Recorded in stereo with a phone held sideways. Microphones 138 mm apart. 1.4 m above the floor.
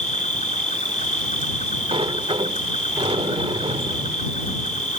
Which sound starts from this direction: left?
An insect, at 0.0 s.